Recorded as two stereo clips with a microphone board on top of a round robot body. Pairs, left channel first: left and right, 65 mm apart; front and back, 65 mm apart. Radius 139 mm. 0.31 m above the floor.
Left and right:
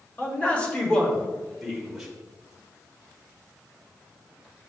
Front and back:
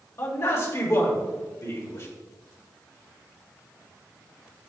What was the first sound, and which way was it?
A man speaking, 35° left.